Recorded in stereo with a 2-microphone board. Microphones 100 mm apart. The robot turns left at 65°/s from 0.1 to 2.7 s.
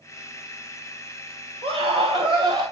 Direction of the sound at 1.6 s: 65° right.